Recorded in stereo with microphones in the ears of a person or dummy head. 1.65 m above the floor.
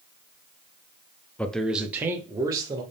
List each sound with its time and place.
1.4 s a man speaking: 10° left (ahead or behind), 0.5 m; by 2.8 s 20° right (ahead or behind), 1.2 m